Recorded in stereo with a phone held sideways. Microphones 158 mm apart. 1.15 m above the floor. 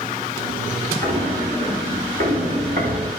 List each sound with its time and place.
1.0 s footsteps: 55° right (ahead or behind), 5.5 m; by 3.1 s 70° right (ahead or behind), 4.5 m